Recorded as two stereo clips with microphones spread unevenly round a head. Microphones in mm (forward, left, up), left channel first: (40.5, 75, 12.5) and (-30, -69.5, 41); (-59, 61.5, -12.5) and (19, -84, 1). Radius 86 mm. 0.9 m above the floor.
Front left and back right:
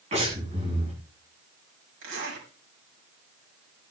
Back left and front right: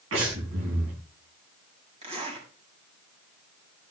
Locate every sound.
0.1 s breathing: 60° right, 7.5 m
2.0 s a zipper: 120° right, 6 m